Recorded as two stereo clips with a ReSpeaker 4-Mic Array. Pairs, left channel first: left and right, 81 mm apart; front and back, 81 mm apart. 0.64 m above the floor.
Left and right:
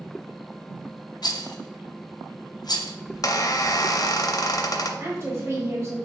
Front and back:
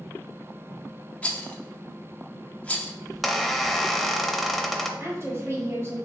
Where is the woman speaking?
135° right, 1.4 m.